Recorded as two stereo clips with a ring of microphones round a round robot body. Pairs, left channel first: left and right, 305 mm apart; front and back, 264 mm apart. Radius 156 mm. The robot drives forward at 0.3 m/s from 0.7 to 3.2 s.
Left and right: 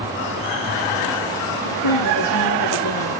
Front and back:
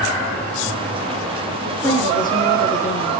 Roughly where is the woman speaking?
Left.